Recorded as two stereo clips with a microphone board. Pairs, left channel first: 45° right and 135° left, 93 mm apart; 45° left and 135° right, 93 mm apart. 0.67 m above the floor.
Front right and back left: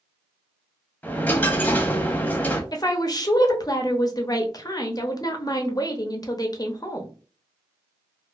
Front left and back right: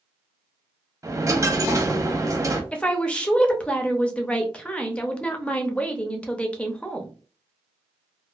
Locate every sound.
1.0 s a dropped coin: 105° right, 0.6 m
2.7 s a woman speaking: 30° right, 0.6 m